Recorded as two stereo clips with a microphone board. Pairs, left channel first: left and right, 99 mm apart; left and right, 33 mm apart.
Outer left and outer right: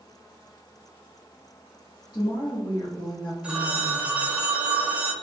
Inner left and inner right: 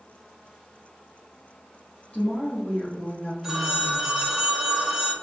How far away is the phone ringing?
About 0.8 m.